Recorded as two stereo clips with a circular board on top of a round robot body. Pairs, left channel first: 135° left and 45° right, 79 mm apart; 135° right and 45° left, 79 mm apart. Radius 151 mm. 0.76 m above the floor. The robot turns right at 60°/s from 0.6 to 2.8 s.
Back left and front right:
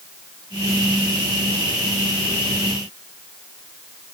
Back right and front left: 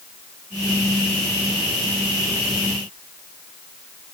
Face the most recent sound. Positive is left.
No sound to turn to.